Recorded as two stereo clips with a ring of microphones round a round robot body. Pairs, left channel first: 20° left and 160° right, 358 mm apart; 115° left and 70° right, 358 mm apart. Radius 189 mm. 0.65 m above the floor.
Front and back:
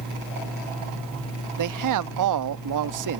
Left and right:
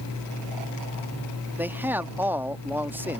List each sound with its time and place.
1.6 s a man speaking: 150° right